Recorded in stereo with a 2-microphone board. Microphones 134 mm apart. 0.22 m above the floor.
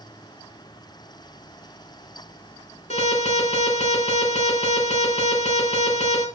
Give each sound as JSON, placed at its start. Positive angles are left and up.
{"t": 2.9, "sound": "an alarm", "side_deg": 60, "distance_m": 4.5}